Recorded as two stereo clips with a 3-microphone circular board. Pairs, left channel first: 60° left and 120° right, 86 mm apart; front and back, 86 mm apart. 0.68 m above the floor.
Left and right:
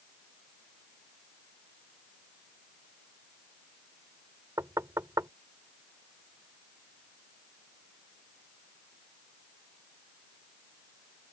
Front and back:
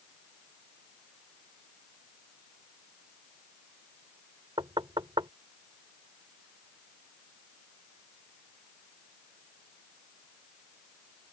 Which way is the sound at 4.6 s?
170° right.